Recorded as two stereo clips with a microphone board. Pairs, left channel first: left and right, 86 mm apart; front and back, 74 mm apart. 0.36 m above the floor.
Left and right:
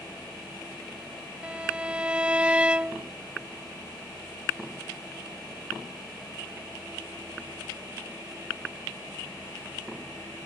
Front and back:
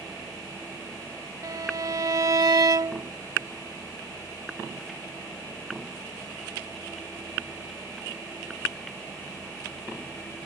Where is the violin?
165° right.